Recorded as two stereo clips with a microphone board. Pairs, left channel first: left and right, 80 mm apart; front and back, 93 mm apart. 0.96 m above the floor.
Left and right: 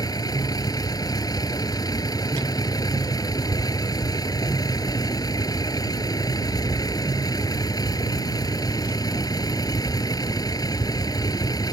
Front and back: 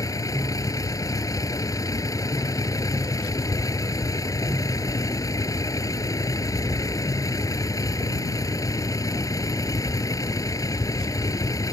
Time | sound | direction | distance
0.0 | a vehicle | 55° left | ?